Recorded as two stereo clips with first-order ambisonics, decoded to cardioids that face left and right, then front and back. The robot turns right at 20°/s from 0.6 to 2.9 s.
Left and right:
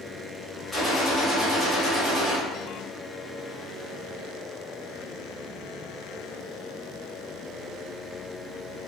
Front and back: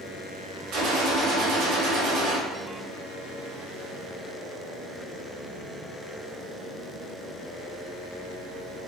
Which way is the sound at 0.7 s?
170° left.